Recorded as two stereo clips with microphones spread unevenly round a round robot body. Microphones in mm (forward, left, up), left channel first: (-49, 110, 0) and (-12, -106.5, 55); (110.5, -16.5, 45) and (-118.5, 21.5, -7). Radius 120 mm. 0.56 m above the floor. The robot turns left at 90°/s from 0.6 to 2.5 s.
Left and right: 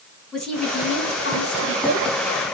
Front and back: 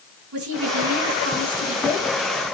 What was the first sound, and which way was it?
A woman speaking, 175° right.